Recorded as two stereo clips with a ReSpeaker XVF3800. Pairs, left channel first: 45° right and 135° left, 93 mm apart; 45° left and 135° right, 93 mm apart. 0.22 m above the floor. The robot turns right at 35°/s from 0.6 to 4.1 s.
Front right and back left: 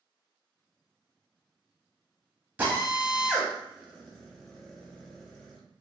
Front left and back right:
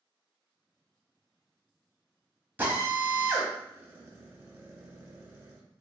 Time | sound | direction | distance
2.6 | a drill | straight behind | 0.9 m